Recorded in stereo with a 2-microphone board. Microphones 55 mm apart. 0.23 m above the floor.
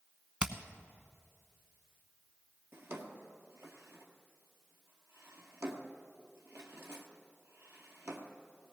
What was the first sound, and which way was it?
Hammering, 25° right (ahead or behind).